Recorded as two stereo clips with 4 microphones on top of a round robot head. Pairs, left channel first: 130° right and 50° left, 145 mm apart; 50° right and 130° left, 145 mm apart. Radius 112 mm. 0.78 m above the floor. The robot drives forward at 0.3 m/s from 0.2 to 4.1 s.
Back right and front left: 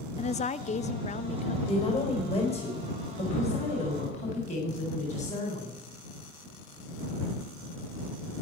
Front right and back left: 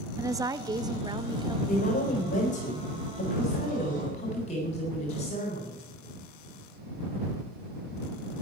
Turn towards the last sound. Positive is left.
turn(degrees=-95)